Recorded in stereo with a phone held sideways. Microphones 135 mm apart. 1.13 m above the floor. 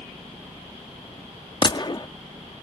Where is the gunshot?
35° left (ahead or behind).